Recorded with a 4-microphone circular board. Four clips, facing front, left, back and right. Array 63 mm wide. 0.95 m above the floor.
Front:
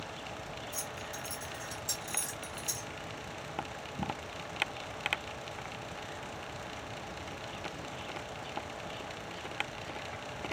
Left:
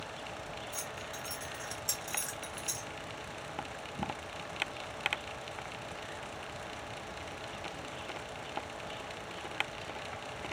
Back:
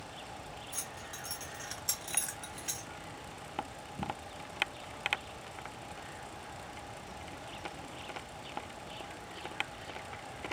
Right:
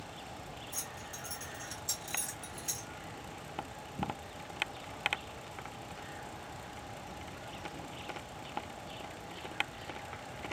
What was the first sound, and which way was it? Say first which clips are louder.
Keys jangling: left 4 dB, front 4 dB; 95° left.